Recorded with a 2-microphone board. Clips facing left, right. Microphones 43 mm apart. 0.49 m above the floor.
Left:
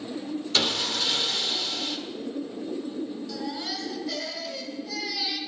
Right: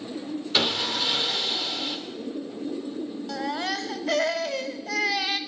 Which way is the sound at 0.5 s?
15° right (ahead or behind).